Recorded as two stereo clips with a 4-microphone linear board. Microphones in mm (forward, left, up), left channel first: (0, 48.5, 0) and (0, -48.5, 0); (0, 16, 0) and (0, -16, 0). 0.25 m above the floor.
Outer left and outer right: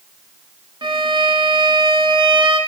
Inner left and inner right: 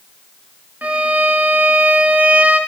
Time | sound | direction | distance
0.8 | a violin | 55° right (ahead or behind) | 0.8 m